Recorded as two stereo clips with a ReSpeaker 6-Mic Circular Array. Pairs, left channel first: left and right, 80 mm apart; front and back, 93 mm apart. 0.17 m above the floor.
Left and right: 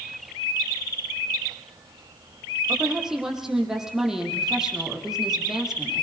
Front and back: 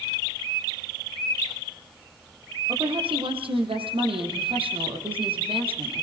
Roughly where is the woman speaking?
Behind.